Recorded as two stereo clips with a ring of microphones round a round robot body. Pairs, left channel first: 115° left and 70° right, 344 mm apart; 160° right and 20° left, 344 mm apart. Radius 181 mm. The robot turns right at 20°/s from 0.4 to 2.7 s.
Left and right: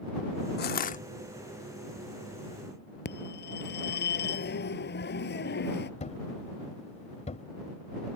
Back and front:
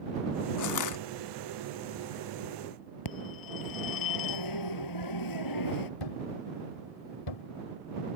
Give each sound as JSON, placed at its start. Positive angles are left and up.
{"t": 0.6, "sound": "crushing", "azimuth_deg": 170}
{"t": 3.0, "sound": "a phone ringing", "azimuth_deg": 175}
{"t": 6.0, "sound": "a thud", "azimuth_deg": -175}